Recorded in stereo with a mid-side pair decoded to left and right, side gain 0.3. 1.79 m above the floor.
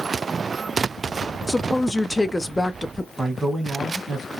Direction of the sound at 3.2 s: 35° right.